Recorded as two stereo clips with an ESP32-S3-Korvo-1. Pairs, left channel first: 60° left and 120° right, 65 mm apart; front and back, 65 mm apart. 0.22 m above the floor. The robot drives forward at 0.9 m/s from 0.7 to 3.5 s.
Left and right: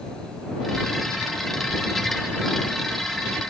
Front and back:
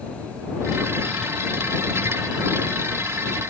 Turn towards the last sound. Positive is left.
No sound to turn to.